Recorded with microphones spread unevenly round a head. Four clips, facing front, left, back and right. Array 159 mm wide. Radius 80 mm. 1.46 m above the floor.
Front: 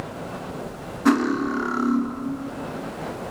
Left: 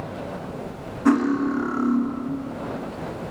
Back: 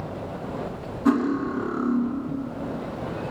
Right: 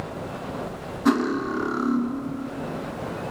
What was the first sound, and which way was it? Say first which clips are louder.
Cutlery clinking: left 3 dB, front 2 dB; 40° left.